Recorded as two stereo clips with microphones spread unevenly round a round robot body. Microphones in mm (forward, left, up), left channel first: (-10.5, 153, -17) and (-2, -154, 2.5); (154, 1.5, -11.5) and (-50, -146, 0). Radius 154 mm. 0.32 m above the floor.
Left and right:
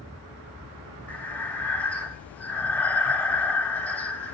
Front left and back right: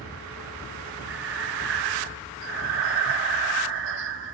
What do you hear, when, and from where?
1.1 s breathing: 175° left, 0.7 m